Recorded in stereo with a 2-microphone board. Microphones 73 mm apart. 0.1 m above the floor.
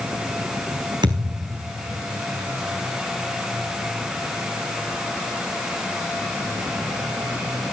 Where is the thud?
80° right, 3.5 m.